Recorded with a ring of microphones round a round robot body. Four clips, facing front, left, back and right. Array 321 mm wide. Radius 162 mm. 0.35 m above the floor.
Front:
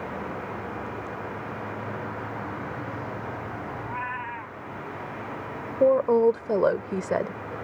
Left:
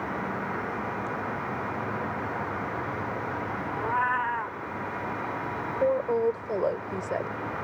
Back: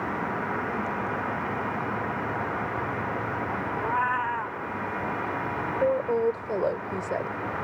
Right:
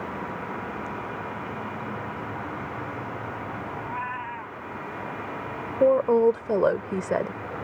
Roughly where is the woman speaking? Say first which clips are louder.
Right 6 dB, front 6 dB; ahead right.